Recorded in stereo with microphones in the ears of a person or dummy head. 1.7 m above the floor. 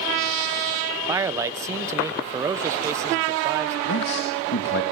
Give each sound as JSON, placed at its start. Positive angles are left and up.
{"t": 1.1, "sound": "a man speaking", "side_deg": -20, "distance_m": 1.3}
{"t": 3.9, "sound": "a man speaking", "side_deg": 70, "distance_m": 2.0}